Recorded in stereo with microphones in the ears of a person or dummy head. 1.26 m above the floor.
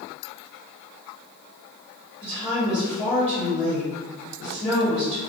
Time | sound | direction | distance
2.2 | a woman speaking | 5° right (ahead or behind) | 1.4 m